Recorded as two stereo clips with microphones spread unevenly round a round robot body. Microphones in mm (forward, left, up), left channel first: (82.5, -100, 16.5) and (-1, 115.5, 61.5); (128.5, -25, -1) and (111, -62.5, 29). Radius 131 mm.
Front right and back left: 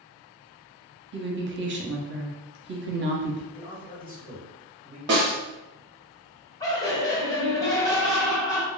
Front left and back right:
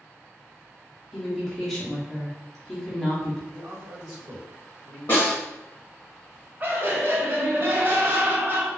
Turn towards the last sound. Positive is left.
turn(degrees=-40)